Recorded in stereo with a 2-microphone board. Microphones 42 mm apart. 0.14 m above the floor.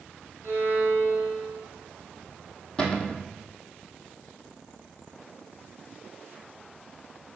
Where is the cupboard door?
20° left (ahead or behind), 1.5 m.